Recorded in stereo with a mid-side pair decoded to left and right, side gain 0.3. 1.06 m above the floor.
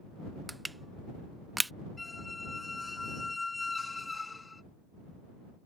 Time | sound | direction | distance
0.5 | crushing | 15° right | ?
2.0 | a squeak | 30° left | ?